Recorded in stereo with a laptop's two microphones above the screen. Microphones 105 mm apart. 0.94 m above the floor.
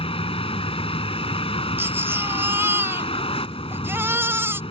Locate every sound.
0.0 s a vehicle: 70° left (ahead or behind)
1.8 s a baby crying: 25° right (ahead or behind)